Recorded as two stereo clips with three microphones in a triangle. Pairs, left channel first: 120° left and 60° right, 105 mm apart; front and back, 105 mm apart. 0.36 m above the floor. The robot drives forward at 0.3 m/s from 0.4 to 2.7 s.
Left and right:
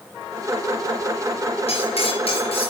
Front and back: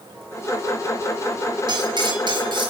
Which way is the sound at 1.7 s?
135° left.